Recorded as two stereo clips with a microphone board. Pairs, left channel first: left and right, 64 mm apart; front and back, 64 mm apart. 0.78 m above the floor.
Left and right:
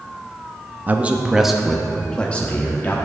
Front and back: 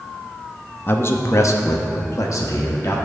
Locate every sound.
0.9 s a man speaking: 40° right, 0.7 m; by 3.0 s 30° left, 1.3 m